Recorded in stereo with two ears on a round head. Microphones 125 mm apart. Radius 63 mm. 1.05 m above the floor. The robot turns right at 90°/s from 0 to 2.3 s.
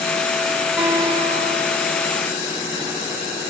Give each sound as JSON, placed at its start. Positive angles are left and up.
{"t": 0.8, "sound": "a guitar", "azimuth_deg": -175, "distance_m": 3.5}